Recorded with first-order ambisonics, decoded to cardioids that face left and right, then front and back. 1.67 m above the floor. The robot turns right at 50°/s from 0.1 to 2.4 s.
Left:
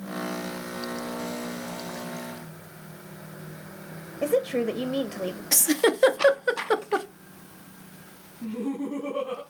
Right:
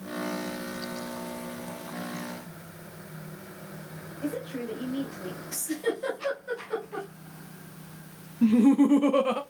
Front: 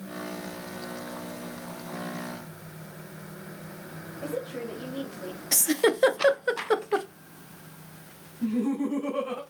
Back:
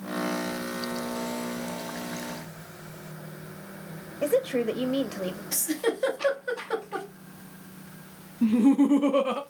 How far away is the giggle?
About 0.6 m.